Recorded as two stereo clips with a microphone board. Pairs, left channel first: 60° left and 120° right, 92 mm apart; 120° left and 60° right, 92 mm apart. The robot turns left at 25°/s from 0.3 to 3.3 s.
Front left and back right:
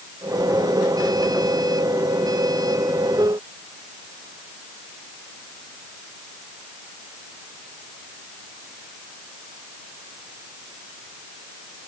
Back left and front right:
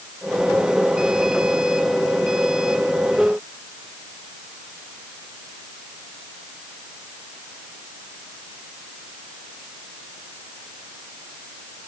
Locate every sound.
Only background noise.